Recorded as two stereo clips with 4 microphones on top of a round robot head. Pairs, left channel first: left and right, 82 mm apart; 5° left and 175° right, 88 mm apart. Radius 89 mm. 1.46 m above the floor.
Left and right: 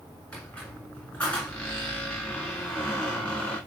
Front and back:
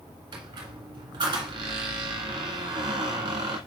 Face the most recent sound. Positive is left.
turn(degrees=170)